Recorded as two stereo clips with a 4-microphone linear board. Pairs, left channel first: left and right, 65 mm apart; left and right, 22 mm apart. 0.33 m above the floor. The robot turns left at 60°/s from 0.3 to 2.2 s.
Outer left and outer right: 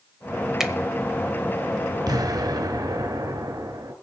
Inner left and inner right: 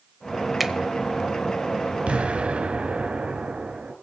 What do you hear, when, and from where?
0.6 s a finger snap: 10° right (ahead or behind), 0.9 m
2.1 s an explosion: 80° right, 2.5 m; by 3.9 s 75° right (ahead or behind), 2.5 m